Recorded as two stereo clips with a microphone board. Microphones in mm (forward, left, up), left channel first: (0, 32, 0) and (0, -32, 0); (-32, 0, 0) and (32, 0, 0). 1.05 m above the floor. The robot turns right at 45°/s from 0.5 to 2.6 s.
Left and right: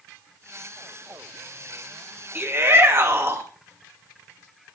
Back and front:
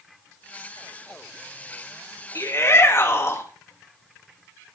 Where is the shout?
145° right, 2.0 m; by 3.5 s 135° right, 2.0 m.